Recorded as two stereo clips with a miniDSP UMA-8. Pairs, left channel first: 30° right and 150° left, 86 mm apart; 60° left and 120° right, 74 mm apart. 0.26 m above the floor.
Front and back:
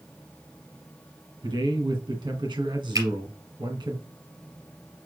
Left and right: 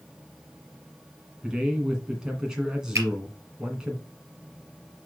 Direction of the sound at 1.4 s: 160° left.